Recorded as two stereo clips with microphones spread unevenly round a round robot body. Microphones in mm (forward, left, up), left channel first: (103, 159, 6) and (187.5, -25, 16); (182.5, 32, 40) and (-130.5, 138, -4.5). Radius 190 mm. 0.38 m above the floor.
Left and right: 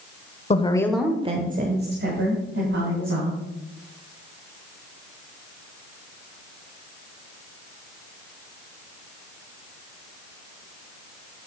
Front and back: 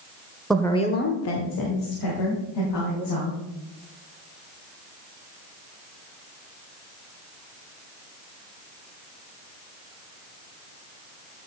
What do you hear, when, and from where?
0.5 s a woman speaking: 80° left, 1.2 m; by 3.4 s 55° right, 3.5 m